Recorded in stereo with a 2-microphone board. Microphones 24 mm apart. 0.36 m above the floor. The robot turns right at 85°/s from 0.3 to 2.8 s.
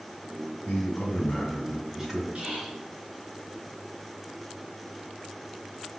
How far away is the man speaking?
About 2.5 m.